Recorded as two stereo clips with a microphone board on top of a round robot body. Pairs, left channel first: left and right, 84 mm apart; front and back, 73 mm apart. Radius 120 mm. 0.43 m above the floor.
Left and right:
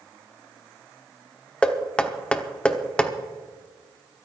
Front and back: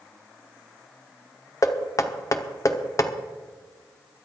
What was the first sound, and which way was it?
Knocking, 15° left.